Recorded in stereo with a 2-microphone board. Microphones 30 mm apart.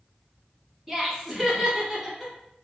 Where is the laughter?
Centre (ahead or behind), 1.1 m.